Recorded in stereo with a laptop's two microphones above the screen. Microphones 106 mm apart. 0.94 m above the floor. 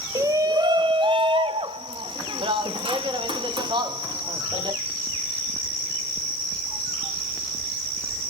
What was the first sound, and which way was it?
A shout, 30° right (ahead or behind).